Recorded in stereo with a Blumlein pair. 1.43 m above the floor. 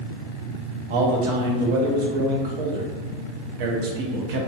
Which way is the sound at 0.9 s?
50° right.